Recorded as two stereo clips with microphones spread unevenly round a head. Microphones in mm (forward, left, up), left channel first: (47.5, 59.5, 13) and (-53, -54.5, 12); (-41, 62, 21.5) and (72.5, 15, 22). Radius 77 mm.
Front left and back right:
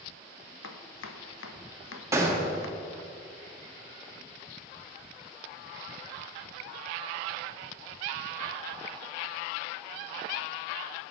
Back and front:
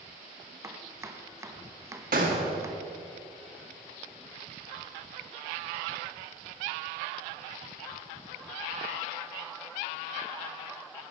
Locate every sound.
0.6 s chopping: 45° left, 0.9 m
2.1 s a gunshot: 60° right, 1.7 m